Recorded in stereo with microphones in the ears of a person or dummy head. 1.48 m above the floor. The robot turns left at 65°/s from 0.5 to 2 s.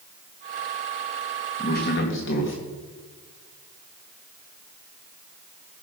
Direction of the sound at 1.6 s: 35° left (ahead or behind).